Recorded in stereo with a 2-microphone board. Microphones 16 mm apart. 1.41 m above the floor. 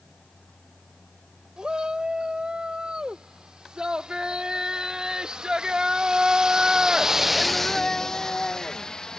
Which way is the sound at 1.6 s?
80° right.